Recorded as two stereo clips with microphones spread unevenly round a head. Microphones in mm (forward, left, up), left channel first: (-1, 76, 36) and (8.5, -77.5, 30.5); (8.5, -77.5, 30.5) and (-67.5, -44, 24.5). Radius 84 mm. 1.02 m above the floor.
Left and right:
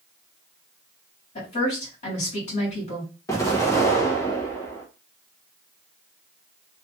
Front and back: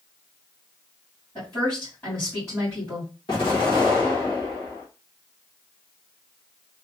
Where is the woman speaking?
50° left, 2 m.